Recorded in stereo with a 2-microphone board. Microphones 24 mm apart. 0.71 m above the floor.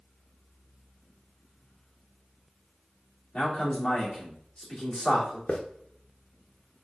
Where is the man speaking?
50° left (ahead or behind), 2 m.